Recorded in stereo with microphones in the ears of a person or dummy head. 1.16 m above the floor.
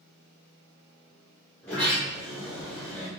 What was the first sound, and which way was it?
A sliding door, 5° left (ahead or behind).